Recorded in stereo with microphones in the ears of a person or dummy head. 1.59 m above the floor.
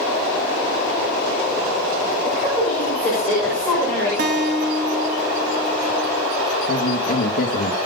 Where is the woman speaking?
Centre (ahead or behind), 7 m; by 4.1 s 10° left (ahead or behind), 7 m.